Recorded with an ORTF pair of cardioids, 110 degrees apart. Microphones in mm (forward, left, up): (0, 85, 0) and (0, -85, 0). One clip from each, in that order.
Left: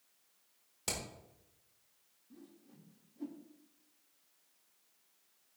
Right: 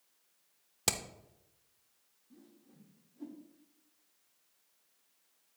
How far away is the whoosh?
About 1.9 m.